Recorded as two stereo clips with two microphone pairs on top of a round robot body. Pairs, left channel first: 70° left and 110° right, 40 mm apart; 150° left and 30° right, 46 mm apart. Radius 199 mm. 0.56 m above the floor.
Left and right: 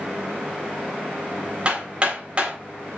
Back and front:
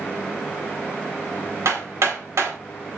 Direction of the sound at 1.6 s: 50° right.